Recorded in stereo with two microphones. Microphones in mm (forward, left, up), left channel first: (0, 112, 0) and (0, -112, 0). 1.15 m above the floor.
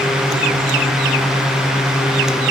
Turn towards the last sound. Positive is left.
No sound to turn to.